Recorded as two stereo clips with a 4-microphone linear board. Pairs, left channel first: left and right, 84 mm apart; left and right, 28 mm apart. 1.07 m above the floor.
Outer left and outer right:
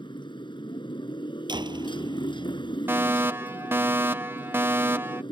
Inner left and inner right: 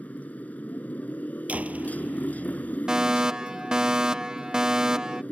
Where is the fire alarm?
25° right (ahead or behind).